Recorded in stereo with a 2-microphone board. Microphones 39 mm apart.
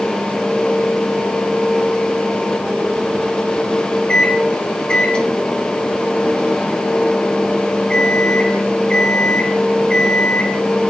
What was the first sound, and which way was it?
A microwave, 25° left (ahead or behind).